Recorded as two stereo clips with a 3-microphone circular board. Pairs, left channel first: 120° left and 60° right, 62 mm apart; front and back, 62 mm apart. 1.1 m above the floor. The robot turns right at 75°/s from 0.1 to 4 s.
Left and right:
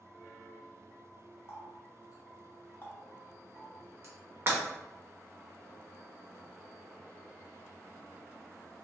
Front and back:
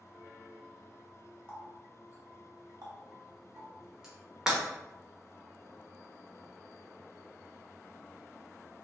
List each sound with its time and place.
1.5 s a running tap: 70° left, 1.2 m; by 4.2 s 100° right, 1.2 m
4.5 s breaking glass: 105° right, 1.1 m